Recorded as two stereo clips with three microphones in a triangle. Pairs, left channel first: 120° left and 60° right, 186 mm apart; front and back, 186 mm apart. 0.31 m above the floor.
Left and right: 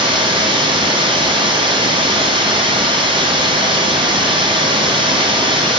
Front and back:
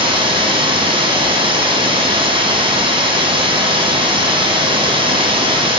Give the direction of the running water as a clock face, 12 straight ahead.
4 o'clock.